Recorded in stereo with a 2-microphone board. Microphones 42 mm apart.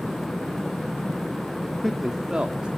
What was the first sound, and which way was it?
A man speaking, 15° left (ahead or behind).